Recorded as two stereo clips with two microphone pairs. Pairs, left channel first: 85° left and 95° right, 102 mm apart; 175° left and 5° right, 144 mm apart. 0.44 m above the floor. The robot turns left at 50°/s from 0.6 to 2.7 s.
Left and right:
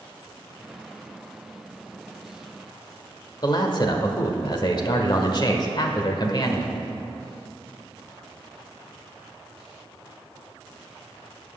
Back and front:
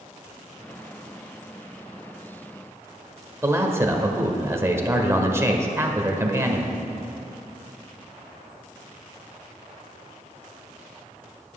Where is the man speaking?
60° left, 1.2 m.